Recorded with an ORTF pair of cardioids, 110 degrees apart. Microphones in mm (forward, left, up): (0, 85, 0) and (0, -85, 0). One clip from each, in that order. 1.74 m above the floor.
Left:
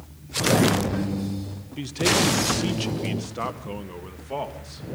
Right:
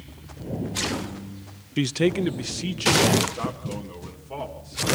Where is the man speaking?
55° right, 0.6 m; by 4.9 s 20° left, 3.5 m.